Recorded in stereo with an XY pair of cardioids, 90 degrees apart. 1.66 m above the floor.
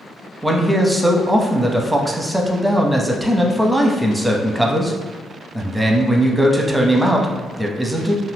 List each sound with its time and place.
0.4 s a man speaking: 10° right, 0.6 m